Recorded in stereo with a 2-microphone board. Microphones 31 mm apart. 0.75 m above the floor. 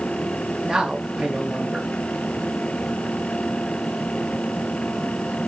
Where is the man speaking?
25° right (ahead or behind), 0.9 m.